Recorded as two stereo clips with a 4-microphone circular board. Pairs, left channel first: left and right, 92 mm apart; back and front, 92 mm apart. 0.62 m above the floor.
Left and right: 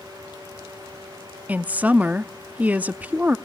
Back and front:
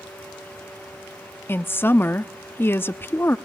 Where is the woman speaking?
145° right, 0.7 m.